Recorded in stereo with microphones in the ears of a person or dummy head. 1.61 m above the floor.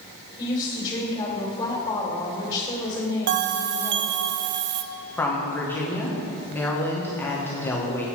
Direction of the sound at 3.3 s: 55° right (ahead or behind).